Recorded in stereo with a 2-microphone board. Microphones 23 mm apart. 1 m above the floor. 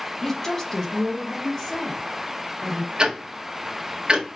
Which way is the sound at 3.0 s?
40° right (ahead or behind).